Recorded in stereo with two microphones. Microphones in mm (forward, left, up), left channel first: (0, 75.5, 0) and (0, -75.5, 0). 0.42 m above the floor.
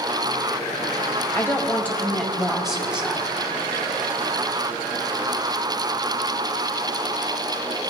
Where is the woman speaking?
20° left (ahead or behind), 1.8 m; by 3.4 s 10° right (ahead or behind), 2.5 m.